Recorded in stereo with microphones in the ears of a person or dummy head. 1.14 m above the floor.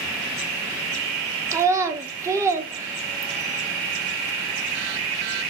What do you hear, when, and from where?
1.5 s a child speaking: 20° right (ahead or behind), 0.7 m